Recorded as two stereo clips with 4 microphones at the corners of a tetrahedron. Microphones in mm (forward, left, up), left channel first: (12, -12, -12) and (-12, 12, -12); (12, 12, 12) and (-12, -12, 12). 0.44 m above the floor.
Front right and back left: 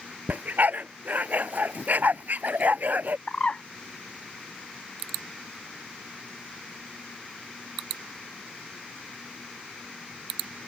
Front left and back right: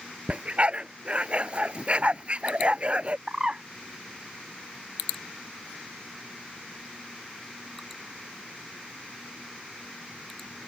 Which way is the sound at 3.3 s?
85° right.